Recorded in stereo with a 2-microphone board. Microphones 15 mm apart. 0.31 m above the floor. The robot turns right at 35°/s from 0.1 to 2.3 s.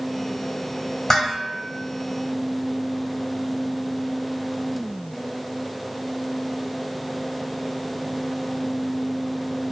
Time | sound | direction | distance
1.1 | dishes clattering | 35° left (ahead or behind) | 1.1 m